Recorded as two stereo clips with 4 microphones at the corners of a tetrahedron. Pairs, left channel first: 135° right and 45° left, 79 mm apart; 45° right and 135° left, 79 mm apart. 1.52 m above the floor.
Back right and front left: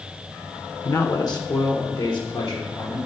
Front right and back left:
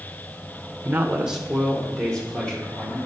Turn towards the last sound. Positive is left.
turn(degrees=-125)